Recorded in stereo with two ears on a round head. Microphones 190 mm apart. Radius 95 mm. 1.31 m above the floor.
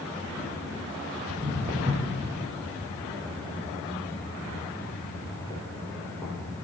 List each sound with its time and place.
1.3 s footsteps: 35° right (ahead or behind), 1.5 m; by 6.3 s centre (ahead or behind), 3 m